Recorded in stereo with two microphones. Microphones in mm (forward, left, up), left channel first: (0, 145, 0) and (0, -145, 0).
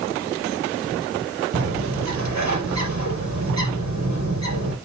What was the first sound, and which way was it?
A bird, 70° right (ahead or behind).